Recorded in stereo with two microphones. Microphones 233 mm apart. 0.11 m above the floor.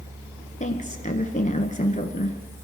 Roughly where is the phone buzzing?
No phone buzzing in this recording.